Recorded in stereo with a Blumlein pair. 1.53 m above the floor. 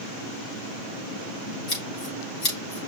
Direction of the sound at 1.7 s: 35° left.